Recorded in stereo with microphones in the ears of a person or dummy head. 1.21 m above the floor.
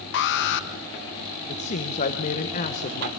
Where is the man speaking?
40° left (ahead or behind), 1.1 m.